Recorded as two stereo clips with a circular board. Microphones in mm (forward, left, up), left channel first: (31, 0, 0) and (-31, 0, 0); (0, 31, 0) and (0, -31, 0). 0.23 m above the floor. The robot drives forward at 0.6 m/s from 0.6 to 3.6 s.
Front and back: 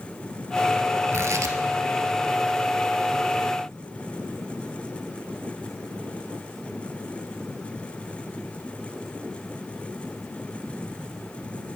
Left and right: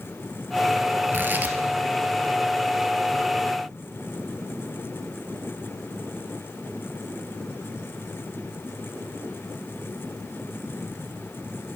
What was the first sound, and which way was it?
Tearing paper, 140° right.